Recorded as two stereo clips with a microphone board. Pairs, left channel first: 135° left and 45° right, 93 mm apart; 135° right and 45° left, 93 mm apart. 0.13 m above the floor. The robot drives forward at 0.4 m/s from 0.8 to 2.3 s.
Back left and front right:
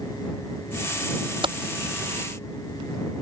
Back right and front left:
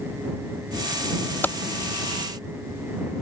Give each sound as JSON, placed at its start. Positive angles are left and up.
{"t": 1.4, "sound": "typing on a keyboard", "azimuth_deg": -65}